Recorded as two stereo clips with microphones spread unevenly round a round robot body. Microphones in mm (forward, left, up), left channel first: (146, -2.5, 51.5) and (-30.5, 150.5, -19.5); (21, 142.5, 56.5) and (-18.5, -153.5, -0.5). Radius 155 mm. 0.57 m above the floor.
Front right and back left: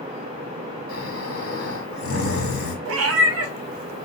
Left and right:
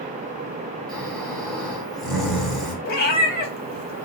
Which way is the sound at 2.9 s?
145° left.